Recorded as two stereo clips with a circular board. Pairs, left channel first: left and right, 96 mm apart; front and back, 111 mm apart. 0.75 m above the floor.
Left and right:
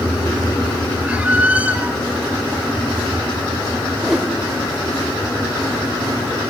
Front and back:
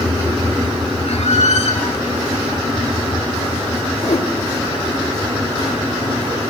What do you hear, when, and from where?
1.0 s a squeak: 15° right, 1.7 m
4.0 s a whoosh: 5° right, 1.0 m